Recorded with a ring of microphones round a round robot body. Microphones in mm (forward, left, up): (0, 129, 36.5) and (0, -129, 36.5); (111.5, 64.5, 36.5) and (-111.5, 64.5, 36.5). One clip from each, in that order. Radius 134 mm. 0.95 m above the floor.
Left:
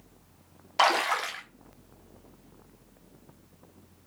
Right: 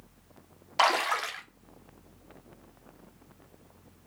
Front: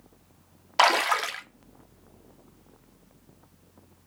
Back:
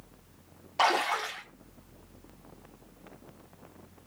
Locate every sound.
0.8 s a splash: 5° right, 1.3 m